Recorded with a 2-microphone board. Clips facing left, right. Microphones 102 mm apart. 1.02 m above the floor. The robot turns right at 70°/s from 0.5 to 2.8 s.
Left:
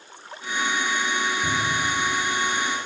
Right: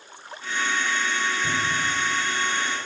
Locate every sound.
1.4 s a cupboard door: 60° left (ahead or behind), 7.5 m; by 2.0 s 80° left, 7.5 m